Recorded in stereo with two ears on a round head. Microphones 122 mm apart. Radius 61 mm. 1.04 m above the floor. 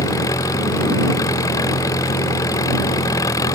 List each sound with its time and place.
0.0 s an engine running: 25° left (ahead or behind)